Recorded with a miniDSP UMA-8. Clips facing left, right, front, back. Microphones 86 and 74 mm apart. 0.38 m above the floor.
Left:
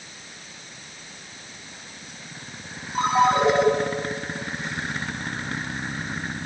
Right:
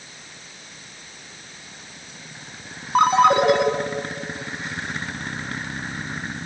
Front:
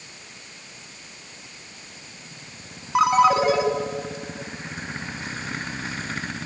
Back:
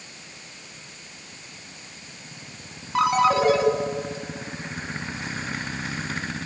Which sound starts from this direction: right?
A ringtone, at 3.0 s.